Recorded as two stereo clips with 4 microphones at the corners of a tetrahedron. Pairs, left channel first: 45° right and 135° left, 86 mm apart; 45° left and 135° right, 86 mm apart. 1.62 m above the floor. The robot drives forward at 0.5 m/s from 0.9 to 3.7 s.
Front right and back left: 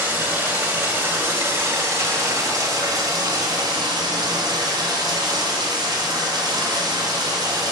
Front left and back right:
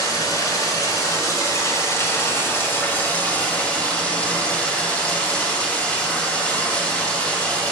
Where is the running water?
70° left, 2 m; by 7.7 s 120° left, 2 m.